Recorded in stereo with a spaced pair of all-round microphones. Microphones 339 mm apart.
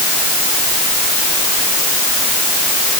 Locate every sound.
Only background noise.